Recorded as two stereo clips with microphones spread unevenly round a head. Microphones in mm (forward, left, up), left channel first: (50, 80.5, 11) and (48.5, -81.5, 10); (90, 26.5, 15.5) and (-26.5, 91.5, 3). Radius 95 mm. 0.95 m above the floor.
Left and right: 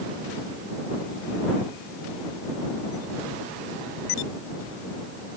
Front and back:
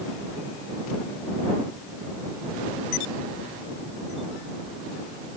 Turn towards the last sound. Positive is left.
No sound to turn to.